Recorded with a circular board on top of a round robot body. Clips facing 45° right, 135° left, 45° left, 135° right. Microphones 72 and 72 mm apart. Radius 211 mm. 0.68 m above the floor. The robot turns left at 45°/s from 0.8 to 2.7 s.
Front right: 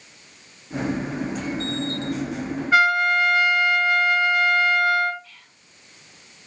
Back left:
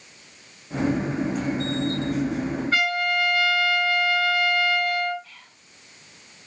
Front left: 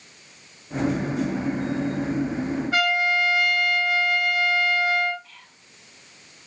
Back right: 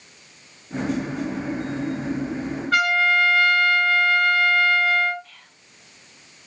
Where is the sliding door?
No sliding door in this recording.